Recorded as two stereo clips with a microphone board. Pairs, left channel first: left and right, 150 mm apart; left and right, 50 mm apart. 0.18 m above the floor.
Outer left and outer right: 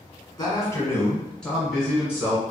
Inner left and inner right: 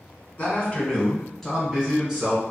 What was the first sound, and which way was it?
A man speaking, 30° left (ahead or behind).